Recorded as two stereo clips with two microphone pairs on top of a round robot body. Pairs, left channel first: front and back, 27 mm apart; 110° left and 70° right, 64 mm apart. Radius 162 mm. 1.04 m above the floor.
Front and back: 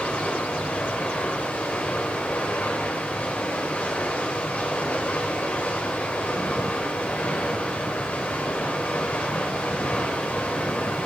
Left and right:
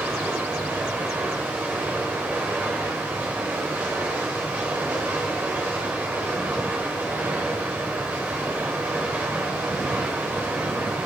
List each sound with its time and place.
0.0 s running water: 10° right, 2.5 m